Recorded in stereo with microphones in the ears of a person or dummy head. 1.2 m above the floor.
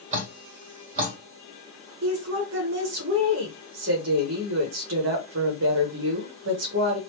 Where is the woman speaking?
45° right (ahead or behind), 1.1 m.